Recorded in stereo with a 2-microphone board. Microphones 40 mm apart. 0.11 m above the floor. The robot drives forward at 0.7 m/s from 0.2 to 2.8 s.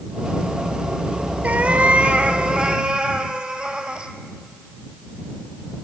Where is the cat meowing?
40° right (ahead or behind), 1.1 m; by 4.1 s 25° right (ahead or behind), 1.8 m.